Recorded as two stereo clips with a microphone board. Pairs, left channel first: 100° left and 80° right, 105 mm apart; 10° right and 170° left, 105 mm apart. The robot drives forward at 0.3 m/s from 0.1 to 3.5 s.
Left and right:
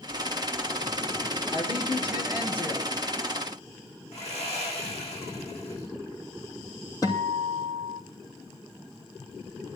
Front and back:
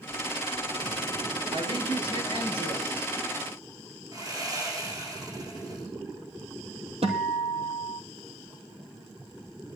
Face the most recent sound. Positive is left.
turn(degrees=155)